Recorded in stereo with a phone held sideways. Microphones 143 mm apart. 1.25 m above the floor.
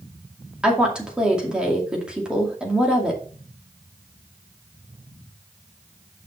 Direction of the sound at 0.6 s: 5° right (ahead or behind).